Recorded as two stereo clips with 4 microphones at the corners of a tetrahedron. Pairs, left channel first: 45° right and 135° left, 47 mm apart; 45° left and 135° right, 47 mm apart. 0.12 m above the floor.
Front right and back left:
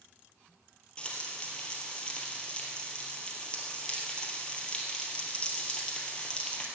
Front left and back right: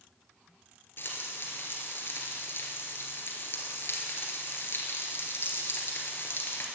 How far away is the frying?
About 2 m.